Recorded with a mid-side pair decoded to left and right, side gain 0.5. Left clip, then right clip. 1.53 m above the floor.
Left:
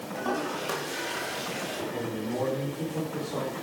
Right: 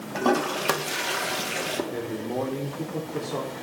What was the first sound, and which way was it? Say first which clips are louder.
A toilet flushing: right 7 dB; 60° right.